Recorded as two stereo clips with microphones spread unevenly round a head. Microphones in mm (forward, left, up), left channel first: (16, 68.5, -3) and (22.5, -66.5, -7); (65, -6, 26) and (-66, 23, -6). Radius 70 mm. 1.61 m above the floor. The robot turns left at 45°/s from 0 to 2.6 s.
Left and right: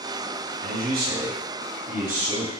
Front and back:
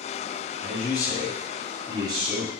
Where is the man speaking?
60° right, 0.8 m; by 2.5 s 145° right, 0.8 m.